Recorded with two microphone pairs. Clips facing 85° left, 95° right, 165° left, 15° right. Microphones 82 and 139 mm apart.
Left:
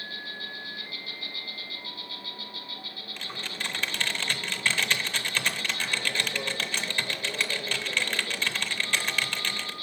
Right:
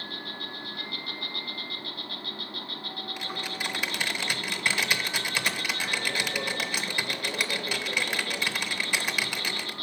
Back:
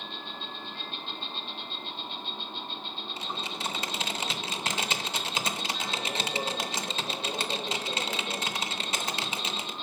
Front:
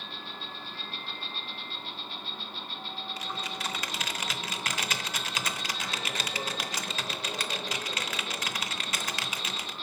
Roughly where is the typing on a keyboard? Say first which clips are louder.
Right 1 dB, back 2 dB; behind.